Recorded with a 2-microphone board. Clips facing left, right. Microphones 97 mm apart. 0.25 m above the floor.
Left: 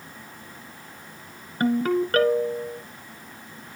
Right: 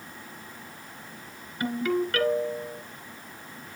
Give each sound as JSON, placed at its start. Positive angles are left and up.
{"t": 1.6, "sound": "a ringtone", "side_deg": 40, "distance_m": 1.7}